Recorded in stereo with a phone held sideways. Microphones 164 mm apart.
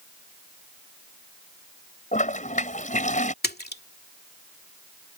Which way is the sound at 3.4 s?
80° left.